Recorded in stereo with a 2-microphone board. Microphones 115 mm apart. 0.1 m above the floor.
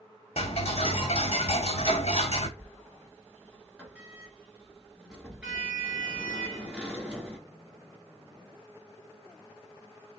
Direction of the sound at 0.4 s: 65° left (ahead or behind).